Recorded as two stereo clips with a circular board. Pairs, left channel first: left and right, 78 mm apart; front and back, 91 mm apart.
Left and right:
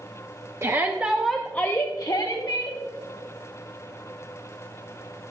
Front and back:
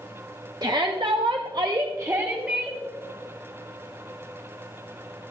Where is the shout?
140° right, 1.0 m; by 2.8 s 105° left, 1.4 m.